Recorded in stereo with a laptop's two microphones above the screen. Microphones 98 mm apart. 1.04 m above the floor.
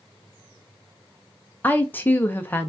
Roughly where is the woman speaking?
Centre.